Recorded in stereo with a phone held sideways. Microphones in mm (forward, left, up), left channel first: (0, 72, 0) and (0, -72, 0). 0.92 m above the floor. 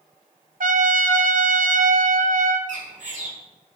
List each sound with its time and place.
0.6 s a trumpet: 70° right (ahead or behind), 0.6 m
2.7 s a bird: 60° right (ahead or behind), 2 m